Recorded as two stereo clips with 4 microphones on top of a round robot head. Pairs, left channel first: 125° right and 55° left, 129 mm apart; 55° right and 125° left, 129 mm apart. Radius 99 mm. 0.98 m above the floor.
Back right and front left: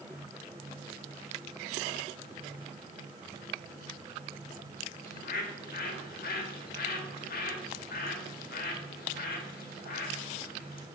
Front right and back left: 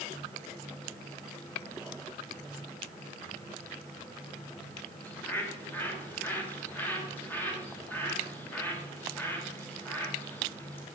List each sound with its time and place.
5.0 s a bird: 135° right, 1.6 m